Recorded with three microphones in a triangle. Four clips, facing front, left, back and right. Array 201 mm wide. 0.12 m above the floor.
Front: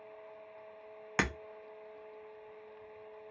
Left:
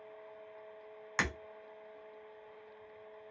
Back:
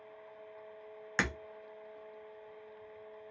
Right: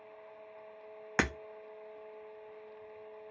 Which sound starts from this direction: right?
Breaking glass, at 1.2 s.